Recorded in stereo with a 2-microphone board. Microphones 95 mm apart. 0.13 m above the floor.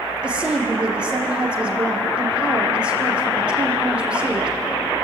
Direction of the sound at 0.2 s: 10° right (ahead or behind).